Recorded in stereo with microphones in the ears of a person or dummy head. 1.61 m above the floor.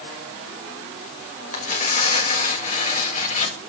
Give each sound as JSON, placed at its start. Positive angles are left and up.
{"t": 1.5, "sound": "tearing paper", "side_deg": 40, "distance_m": 2.5}